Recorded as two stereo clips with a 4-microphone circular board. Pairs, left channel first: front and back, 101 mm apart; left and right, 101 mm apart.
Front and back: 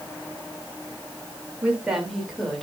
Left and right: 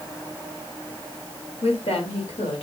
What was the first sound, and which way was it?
A woman speaking, 105° left.